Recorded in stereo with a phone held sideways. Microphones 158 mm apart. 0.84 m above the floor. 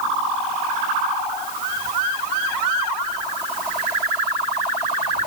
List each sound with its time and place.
Only background noise.